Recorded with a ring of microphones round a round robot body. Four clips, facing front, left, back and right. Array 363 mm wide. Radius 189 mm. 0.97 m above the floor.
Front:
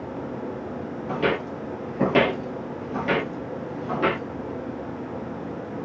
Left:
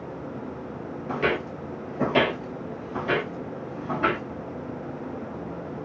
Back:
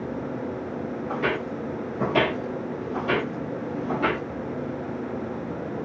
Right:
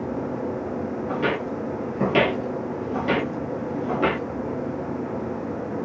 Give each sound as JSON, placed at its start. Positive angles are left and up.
{"t": 1.1, "sound": "footsteps", "azimuth_deg": 35, "distance_m": 1.3}